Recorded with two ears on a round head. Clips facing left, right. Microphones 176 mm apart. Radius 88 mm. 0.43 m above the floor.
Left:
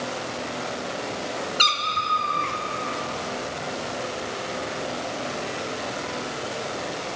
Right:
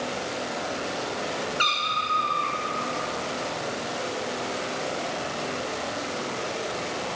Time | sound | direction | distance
1.6 | a cat meowing | 45° left (ahead or behind) | 0.6 m